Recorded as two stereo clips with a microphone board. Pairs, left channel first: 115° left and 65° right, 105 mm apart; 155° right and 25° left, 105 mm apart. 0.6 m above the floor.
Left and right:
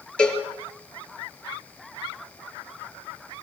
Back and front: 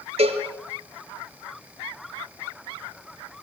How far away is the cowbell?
About 4.5 m.